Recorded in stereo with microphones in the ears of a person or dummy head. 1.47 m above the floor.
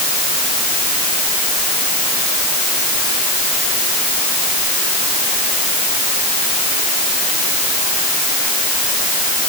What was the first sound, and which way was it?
Only background noise.